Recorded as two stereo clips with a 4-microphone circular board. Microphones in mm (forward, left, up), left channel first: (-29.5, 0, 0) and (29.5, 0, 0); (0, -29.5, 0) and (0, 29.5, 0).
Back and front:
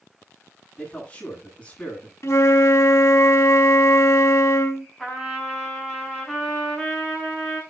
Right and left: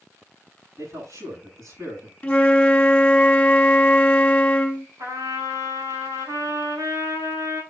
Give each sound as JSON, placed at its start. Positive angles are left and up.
{"t": 0.8, "sound": "a man speaking", "azimuth_deg": 110, "distance_m": 7.5}
{"t": 2.2, "sound": "a flute", "azimuth_deg": -160, "distance_m": 1.5}
{"t": 5.0, "sound": "a trumpet", "azimuth_deg": 100, "distance_m": 7.5}